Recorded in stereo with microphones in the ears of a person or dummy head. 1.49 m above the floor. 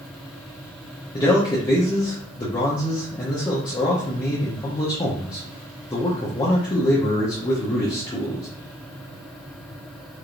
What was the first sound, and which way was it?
A man speaking, 20° left (ahead or behind).